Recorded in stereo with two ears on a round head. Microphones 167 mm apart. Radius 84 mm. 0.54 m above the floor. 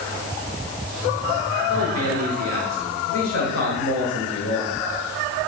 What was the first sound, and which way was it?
A man speaking, 85° left.